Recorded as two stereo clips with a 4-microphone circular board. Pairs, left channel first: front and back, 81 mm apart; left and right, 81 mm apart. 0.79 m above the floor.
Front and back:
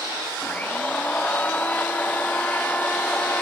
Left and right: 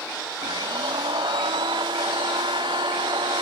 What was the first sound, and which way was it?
A blender, 70° right.